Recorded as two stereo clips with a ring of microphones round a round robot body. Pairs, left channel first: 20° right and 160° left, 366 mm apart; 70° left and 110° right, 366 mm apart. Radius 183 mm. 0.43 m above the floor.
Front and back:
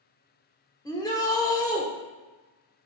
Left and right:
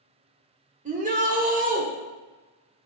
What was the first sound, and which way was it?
A shout, 85° right.